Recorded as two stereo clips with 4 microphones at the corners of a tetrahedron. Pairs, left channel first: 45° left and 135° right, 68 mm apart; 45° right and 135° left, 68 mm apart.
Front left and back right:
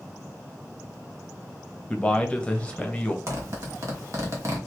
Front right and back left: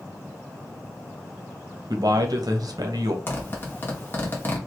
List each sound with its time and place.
1.9 s a man speaking: 115° left, 1.1 m
3.3 s a zipper: 100° right, 1.5 m